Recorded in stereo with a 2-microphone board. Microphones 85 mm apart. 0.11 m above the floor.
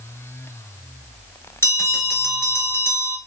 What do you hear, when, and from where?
1.6 s a bell: 30° left (ahead or behind), 1.4 m